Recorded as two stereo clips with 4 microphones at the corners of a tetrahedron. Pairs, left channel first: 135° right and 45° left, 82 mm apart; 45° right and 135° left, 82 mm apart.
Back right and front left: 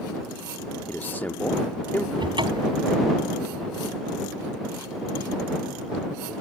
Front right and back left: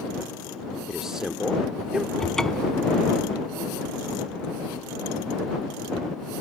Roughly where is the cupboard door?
Ahead left.